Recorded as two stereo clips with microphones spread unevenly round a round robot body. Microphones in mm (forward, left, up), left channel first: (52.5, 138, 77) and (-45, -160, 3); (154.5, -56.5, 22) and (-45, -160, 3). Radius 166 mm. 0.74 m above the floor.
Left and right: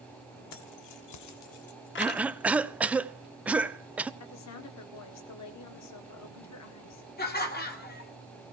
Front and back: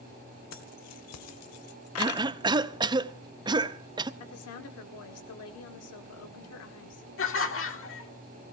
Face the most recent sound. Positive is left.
turn(degrees=5)